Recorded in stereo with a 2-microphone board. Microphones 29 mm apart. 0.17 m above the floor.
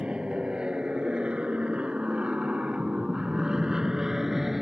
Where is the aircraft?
30° right (ahead or behind); by 4.6 s 10° right (ahead or behind).